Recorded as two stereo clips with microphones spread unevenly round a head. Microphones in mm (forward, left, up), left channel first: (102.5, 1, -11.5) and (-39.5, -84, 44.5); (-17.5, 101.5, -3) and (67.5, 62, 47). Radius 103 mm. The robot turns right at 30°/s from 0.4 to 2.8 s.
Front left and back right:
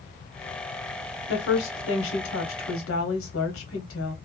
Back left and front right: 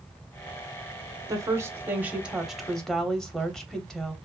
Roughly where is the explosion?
No explosion in this recording.